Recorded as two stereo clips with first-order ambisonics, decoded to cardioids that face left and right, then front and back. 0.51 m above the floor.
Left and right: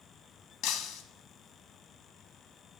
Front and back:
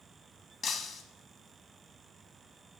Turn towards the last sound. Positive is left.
turn(degrees=65)